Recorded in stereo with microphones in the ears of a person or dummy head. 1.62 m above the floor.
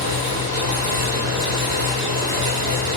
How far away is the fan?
About 1.5 m.